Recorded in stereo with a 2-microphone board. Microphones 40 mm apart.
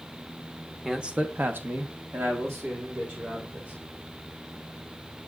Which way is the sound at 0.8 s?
10° right (ahead or behind).